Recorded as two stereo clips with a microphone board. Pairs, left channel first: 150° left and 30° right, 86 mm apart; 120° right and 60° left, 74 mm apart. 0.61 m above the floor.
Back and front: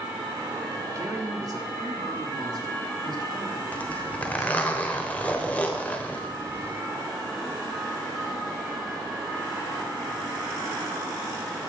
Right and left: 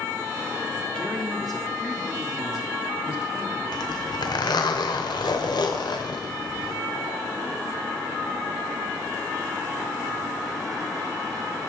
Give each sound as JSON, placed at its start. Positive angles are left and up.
{"t": 0.9, "sound": "a man speaking", "azimuth_deg": -45, "distance_m": 1.6}
{"t": 3.7, "sound": "a zipper", "azimuth_deg": -140, "distance_m": 1.0}